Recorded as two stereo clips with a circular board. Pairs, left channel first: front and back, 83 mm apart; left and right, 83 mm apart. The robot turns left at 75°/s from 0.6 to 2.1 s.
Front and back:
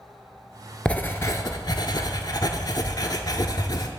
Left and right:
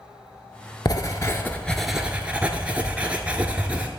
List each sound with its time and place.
0.8 s writing: 75° left, 0.6 m; by 3.9 s 20° right, 0.6 m